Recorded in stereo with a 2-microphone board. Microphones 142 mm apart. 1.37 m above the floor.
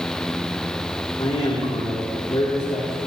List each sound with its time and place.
1.2 s a man speaking: 45° left (ahead or behind), 3 m